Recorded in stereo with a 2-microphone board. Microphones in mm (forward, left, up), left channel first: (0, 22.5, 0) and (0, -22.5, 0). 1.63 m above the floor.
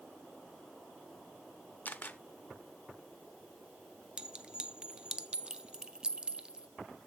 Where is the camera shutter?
40° left (ahead or behind), 0.6 m.